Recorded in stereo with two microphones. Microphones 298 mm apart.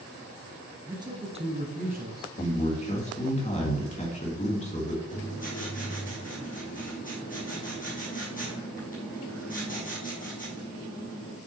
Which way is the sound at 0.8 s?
10° right (ahead or behind).